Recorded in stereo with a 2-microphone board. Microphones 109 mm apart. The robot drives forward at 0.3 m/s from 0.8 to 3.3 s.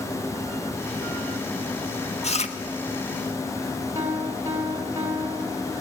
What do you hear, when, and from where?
2.2 s chewing: 75° left (ahead or behind), 1.3 m
4.0 s a piano: 30° right (ahead or behind), 4 m